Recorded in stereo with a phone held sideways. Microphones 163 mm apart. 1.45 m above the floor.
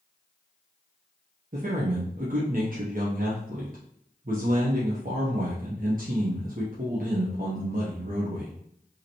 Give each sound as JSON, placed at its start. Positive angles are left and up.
{"t": 1.5, "sound": "a man speaking", "side_deg": -60, "distance_m": 0.9}